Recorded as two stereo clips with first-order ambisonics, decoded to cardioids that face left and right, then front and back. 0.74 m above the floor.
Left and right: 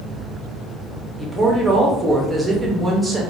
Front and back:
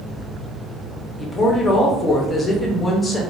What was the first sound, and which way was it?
A woman speaking, 35° right.